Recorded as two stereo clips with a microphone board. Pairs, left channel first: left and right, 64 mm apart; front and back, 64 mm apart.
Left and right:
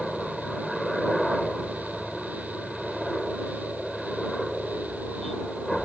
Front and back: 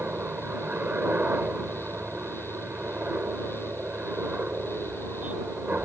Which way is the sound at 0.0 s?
175° left.